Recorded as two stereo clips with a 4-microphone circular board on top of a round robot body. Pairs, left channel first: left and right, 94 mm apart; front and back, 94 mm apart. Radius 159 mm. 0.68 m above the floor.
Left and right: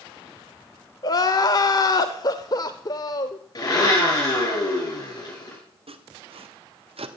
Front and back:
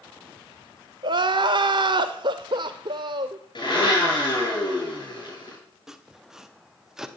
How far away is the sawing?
About 1.4 m.